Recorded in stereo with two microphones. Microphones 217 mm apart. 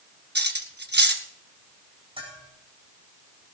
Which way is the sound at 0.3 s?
55° right (ahead or behind).